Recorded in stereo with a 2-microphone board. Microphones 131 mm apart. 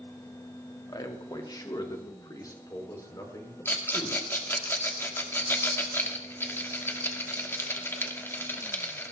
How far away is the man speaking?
About 1.8 m.